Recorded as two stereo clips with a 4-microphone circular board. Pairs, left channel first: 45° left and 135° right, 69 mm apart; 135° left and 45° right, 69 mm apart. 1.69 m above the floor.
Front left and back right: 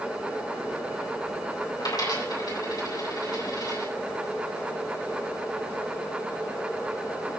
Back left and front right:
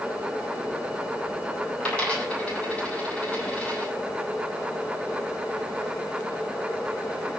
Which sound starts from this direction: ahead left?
A dropped coin, at 1.8 s.